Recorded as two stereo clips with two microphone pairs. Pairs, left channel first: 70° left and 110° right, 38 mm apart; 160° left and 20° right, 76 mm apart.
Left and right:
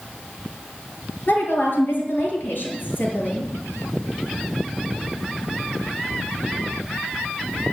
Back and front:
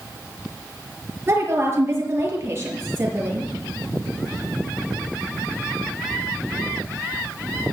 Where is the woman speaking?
35° left, 6 m.